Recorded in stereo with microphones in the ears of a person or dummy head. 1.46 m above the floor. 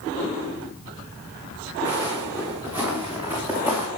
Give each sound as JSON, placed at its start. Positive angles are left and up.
{"t": 1.9, "sound": "footsteps", "side_deg": -10, "distance_m": 7.0}